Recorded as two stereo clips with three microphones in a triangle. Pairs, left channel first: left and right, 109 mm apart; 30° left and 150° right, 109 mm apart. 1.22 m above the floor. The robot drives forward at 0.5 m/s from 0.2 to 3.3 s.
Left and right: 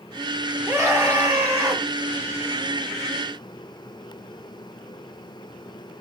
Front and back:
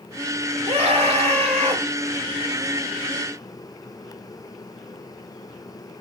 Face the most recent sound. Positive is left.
turn(degrees=-160)